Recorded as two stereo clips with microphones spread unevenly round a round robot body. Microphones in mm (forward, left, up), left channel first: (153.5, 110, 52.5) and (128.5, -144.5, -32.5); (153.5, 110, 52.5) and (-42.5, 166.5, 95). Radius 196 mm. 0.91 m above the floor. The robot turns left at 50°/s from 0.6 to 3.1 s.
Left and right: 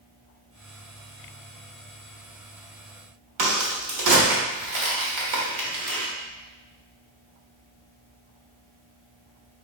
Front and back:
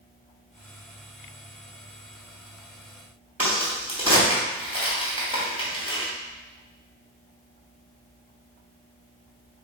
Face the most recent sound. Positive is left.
turn(degrees=-115)